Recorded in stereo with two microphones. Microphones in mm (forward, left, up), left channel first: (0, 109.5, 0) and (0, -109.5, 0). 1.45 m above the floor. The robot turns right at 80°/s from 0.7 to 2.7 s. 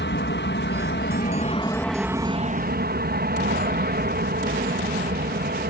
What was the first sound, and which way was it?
An aircraft, 80° left.